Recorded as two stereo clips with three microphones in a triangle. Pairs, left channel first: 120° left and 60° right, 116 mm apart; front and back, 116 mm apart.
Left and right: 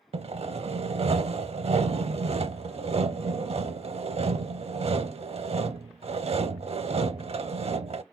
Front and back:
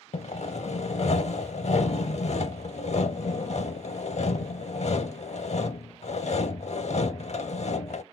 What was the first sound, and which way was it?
Sawing, 25° right.